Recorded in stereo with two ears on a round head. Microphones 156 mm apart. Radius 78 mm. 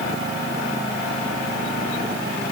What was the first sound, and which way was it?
Only background noise.